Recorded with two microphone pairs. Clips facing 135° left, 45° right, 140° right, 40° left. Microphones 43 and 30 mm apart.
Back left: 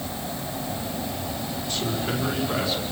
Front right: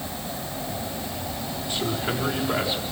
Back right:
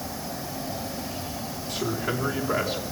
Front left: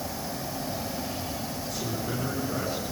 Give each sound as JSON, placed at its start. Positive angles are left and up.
{"t": 1.7, "sound": "a man speaking", "azimuth_deg": -105, "distance_m": 5.5}